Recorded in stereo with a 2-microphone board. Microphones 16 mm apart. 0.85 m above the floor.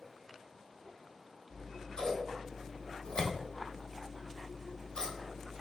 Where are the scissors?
55° left (ahead or behind), 1.0 m.